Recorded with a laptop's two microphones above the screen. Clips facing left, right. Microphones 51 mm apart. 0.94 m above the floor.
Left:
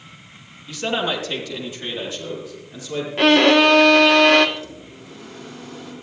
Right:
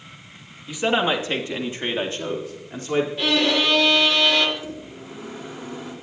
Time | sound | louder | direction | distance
0.7 | a man speaking | right 2 dB | 15° right (ahead or behind) | 1.3 m
3.2 | a violin | left 12 dB | 60° left (ahead or behind) | 1.3 m
4.6 | a microwave | right 1 dB | 20° right (ahead or behind) | 3 m